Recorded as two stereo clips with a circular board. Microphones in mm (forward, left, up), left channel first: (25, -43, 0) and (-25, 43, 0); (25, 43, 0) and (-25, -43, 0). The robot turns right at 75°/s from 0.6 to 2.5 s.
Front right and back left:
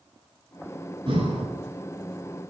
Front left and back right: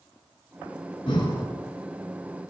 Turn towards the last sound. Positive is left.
turn(degrees=-155)